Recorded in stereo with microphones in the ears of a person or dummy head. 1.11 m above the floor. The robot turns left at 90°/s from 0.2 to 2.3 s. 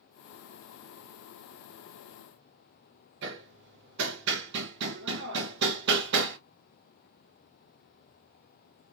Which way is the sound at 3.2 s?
55° right (ahead or behind).